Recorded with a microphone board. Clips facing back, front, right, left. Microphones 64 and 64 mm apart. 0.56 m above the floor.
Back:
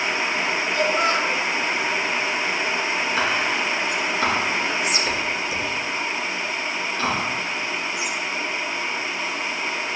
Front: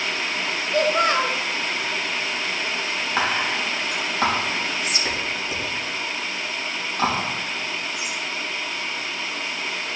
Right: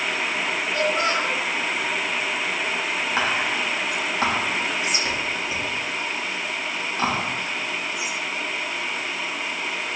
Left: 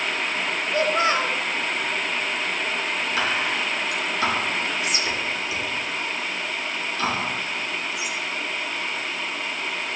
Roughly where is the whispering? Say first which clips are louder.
Front 2 dB, right 1 dB; ahead right.